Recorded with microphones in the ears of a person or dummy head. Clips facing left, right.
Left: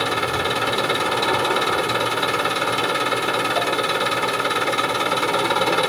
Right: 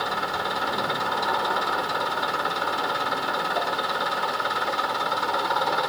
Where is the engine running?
50° left (ahead or behind).